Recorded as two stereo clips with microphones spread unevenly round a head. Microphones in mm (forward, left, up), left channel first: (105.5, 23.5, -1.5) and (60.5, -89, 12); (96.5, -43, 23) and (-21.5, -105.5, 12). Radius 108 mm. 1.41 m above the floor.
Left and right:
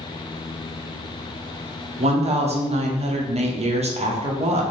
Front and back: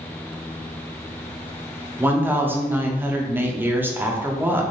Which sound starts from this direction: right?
A woman speaking, at 2.0 s.